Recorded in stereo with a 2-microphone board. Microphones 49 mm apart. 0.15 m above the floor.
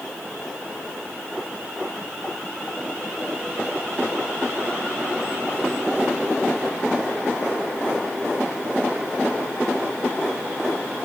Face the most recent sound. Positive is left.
No sound to turn to.